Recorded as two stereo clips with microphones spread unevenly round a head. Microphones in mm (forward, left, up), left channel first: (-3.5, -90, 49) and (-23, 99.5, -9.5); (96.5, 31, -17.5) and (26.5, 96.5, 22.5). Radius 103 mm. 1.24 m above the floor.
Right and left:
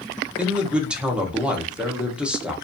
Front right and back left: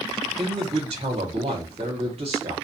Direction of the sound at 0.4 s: 175° right.